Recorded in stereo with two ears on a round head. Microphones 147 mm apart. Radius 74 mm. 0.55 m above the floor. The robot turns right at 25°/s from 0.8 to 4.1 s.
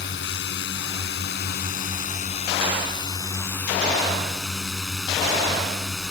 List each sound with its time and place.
0.0 s a drone: 100° left; by 6.1 s straight behind